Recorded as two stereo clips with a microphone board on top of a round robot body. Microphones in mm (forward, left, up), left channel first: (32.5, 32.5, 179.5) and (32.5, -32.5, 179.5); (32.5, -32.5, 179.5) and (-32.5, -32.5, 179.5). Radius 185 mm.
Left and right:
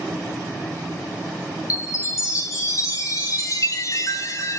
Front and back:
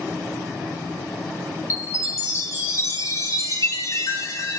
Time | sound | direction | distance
1.7 | a chime | 50° left | 1.8 m